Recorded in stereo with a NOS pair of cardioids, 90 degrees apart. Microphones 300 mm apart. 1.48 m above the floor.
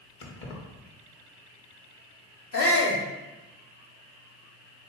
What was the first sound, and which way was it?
Keys jangling, 40° left.